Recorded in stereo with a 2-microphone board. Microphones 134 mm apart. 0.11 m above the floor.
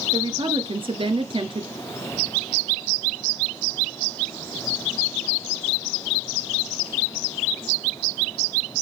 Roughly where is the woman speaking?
Right.